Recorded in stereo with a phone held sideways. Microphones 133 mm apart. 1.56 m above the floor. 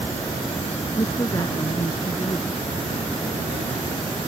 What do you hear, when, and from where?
1.0 s a woman speaking: 30° left (ahead or behind)